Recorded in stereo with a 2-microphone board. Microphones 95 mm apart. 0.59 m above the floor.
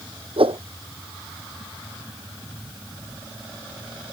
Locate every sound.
0.4 s a whoosh: 70° right (ahead or behind)